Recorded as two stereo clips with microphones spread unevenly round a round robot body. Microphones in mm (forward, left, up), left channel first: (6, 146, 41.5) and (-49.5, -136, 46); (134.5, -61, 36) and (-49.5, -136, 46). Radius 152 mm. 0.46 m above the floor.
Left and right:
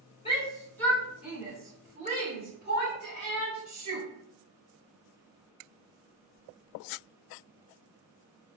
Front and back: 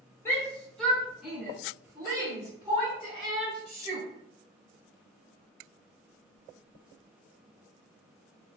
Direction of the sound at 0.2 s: 70° left.